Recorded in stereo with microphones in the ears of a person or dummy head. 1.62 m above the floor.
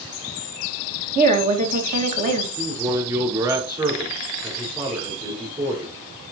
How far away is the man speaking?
About 5 m.